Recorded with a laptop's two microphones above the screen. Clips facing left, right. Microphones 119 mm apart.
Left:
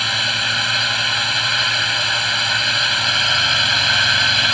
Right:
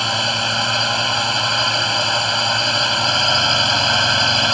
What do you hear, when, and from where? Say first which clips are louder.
0.0 s a drone: right 4 dB; 30° right (ahead or behind)